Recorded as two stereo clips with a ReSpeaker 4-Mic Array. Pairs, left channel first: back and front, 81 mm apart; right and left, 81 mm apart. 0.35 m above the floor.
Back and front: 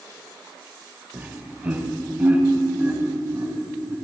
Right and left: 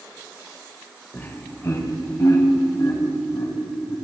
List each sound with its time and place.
1.1 s laughter: 50° right, 1.4 m; by 4.0 s 70° right, 3.5 m